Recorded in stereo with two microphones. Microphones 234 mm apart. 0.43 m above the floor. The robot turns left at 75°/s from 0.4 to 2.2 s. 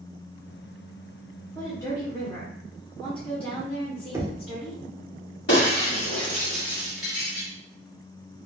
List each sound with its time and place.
1.6 s a woman speaking: 5° left (ahead or behind), 0.8 m; by 4.8 s 20° left (ahead or behind), 0.8 m
4.1 s knocking: 10° right (ahead or behind), 0.5 m
5.5 s breaking glass: 55° left (ahead or behind), 1.3 m